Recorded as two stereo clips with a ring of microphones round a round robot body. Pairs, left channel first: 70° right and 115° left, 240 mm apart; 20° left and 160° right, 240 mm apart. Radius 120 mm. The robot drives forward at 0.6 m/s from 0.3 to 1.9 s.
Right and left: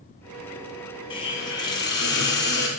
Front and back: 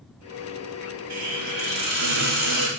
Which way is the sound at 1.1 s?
140° right.